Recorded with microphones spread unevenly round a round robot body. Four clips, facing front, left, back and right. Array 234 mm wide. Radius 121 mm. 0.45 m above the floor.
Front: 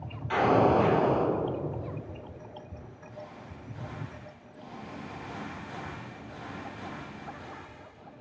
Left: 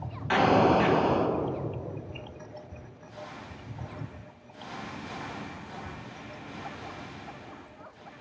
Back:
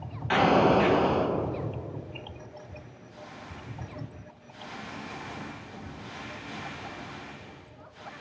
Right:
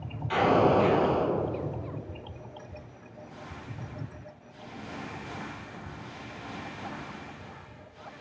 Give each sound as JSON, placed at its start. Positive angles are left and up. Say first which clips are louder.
{"t": 0.3, "sound": "an explosion", "louder": "left 1 dB, back 1 dB", "azimuth_deg": 140, "distance_m": 2.5}